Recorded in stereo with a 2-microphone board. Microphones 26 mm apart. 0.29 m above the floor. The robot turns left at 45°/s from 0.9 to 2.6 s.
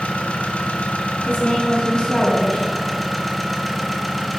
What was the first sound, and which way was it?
An engine running, 80° left.